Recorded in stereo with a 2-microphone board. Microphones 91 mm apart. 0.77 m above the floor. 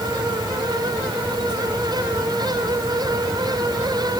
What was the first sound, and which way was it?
Only background noise.